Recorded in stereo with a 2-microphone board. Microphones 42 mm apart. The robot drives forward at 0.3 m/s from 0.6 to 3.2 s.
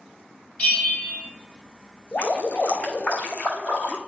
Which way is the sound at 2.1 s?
40° left (ahead or behind).